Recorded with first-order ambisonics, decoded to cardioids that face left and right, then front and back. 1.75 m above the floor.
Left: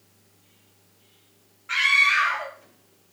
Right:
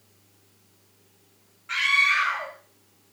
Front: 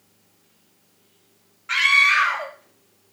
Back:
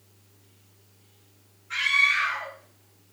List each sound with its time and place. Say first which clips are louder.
1.7 s a scream: left 2 dB, front 6 dB; 5° left, 2.5 m